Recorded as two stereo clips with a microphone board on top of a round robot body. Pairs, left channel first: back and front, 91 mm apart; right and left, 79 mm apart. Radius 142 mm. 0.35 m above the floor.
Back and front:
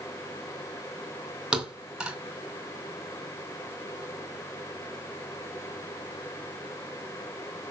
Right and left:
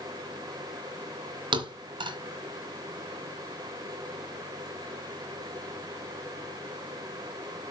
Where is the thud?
85° left, 2.5 m.